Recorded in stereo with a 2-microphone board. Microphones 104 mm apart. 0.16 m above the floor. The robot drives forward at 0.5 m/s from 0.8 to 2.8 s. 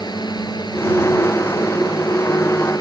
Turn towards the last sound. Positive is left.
turn(degrees=40)  # may be behind; listen again after turning